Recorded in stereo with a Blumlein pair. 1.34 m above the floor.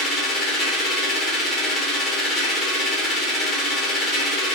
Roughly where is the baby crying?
No baby crying in this recording.